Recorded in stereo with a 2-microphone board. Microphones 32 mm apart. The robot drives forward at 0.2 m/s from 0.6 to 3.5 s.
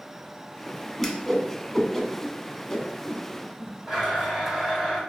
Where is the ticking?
I don't hear ticking.